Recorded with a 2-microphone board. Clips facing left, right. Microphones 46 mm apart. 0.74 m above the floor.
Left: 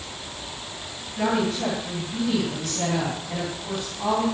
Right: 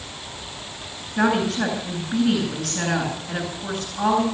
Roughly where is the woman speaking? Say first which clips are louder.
Right 3 dB; right.